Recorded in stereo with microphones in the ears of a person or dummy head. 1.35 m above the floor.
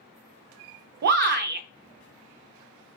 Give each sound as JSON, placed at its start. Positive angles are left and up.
{"t": 1.0, "sound": "a shout", "side_deg": -60, "distance_m": 0.7}